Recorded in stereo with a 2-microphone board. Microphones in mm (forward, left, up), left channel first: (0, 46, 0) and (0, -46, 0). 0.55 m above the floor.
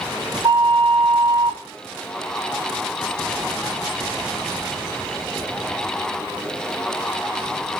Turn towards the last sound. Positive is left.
turn(degrees=-55)  # may be behind; listen again after turning